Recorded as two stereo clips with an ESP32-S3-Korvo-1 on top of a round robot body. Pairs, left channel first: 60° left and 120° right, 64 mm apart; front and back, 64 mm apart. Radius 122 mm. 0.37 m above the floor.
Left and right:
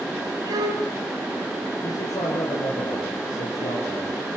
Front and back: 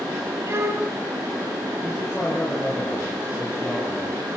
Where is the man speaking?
95° left, 10 m.